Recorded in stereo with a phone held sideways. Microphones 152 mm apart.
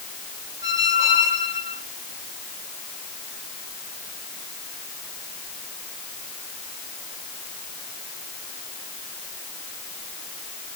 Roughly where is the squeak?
Right.